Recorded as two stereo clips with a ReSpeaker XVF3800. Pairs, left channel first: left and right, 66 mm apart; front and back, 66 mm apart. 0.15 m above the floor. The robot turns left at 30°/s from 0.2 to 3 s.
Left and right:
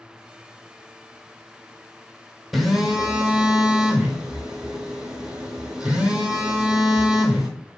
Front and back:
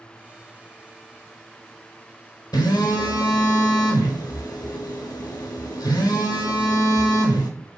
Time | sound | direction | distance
2.5 | a phone buzzing | 5° right | 1.0 m